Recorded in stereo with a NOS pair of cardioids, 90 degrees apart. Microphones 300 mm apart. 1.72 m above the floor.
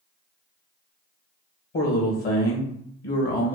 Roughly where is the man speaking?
Ahead left.